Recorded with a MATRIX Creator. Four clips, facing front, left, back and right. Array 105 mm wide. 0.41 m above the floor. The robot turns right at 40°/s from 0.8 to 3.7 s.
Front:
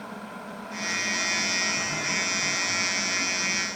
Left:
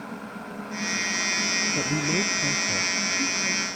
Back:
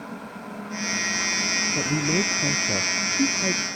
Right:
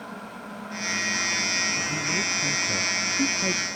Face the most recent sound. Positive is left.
turn(degrees=-140)